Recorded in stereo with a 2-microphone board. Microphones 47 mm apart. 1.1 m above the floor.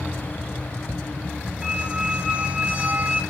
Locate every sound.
1.6 s a squeak: 25° right (ahead or behind), 0.6 m